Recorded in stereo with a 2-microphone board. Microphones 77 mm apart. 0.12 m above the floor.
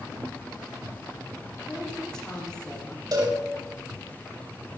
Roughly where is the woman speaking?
Centre.